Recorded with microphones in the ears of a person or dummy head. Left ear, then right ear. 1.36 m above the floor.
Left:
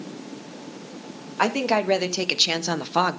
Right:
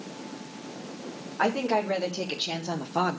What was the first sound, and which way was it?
A woman speaking, 80° left.